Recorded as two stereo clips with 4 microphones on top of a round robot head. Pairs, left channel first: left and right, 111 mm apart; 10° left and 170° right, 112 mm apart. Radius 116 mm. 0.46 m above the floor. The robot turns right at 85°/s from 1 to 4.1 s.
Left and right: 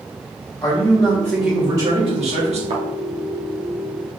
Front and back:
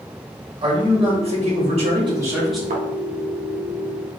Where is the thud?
140° right, 0.9 m; by 2.8 s 130° right, 0.9 m.